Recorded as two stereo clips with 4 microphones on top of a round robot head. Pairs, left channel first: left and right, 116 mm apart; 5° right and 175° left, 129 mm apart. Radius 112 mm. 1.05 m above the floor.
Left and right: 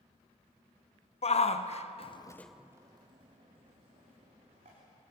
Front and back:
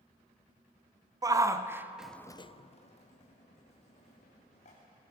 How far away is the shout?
About 1.8 m.